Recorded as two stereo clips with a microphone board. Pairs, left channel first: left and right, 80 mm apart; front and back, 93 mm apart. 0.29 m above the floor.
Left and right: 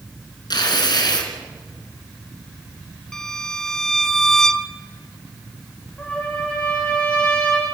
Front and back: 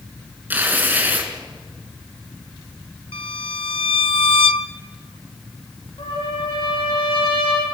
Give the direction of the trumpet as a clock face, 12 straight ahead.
11 o'clock.